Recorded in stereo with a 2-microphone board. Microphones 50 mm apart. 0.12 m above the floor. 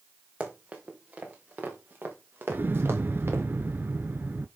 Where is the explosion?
45° right (ahead or behind), 0.7 m.